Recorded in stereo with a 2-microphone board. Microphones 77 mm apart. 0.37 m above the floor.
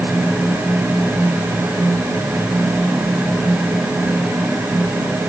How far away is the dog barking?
No dog barking in this recording.